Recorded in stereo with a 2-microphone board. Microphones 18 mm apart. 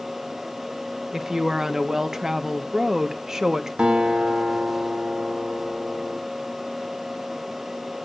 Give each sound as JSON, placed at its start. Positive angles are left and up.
{"t": 1.1, "sound": "a woman speaking", "side_deg": -25, "distance_m": 1.3}
{"t": 3.8, "sound": "a guitar", "side_deg": -80, "distance_m": 3.5}